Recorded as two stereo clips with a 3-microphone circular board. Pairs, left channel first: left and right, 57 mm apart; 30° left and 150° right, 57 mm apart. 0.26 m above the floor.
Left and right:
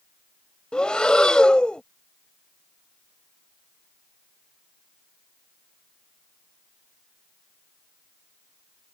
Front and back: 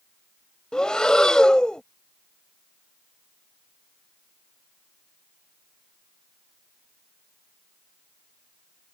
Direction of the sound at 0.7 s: 65° left.